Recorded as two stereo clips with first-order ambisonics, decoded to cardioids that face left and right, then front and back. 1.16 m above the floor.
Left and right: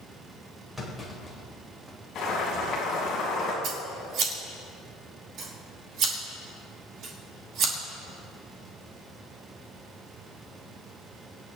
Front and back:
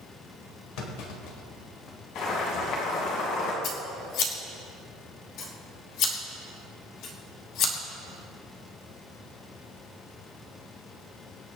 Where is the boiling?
30° left, 4.5 m.